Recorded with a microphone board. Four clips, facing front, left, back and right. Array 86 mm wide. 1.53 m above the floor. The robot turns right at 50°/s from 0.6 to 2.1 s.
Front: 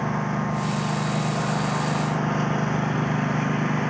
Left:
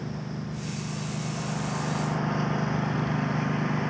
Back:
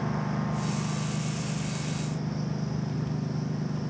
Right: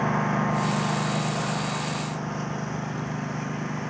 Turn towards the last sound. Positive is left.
turn(degrees=10)